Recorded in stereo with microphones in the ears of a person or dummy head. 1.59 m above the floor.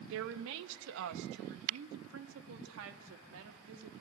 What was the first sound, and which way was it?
A woman speaking, 75° right (ahead or behind).